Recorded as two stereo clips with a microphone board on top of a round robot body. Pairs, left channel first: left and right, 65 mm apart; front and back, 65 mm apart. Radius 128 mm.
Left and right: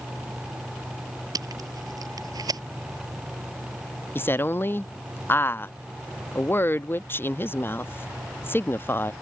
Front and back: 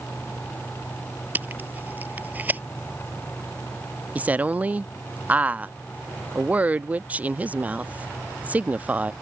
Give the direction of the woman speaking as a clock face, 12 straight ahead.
8 o'clock.